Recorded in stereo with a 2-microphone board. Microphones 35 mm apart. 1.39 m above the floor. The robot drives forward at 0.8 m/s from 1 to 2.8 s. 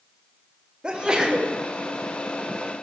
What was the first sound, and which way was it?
A sneeze, 25° right (ahead or behind).